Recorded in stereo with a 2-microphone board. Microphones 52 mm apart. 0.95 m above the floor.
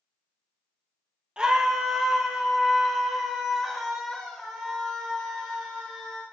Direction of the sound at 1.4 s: 20° right (ahead or behind).